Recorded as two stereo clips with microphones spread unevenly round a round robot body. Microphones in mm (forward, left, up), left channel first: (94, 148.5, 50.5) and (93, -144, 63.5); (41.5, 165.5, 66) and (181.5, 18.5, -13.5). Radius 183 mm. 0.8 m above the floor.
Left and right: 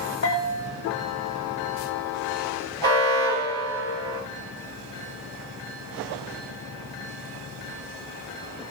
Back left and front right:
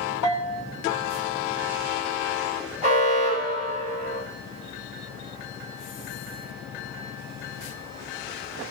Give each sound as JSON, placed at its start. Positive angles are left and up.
{"t": 0.2, "sound": "a bell", "azimuth_deg": 135, "distance_m": 2.0}
{"t": 2.8, "sound": "an alarm", "azimuth_deg": -150, "distance_m": 5.5}